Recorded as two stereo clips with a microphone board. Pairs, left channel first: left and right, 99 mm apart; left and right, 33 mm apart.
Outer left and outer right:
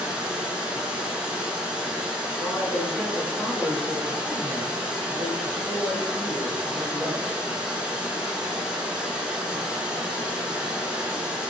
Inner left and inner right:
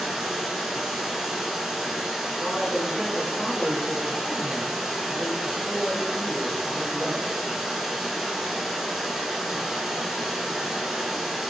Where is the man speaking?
5° left (ahead or behind), 1.7 m.